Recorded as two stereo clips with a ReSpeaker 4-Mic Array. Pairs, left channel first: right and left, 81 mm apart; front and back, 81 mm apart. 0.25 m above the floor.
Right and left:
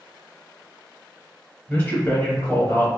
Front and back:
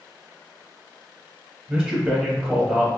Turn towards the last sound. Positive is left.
turn(degrees=-115)